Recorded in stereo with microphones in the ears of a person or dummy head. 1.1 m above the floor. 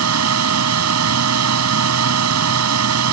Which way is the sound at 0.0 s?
85° right.